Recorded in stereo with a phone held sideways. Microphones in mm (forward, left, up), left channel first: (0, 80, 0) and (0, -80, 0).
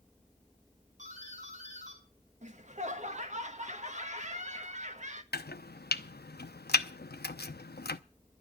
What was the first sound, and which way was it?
A doorbell, 50° right (ahead or behind).